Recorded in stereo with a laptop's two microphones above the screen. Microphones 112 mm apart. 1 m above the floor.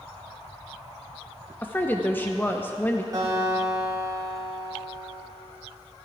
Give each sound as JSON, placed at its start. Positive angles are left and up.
{"t": 1.6, "sound": "a woman speaking", "side_deg": 20, "distance_m": 0.6}
{"t": 3.1, "sound": "a guitar", "side_deg": -35, "distance_m": 3.5}